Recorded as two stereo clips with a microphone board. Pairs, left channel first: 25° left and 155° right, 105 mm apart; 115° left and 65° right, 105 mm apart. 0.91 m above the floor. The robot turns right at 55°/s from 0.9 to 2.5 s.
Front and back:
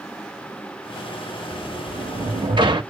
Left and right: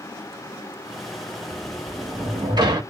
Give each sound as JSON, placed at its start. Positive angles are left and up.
{"t": 1.5, "sound": "a sliding door", "azimuth_deg": -170, "distance_m": 0.9}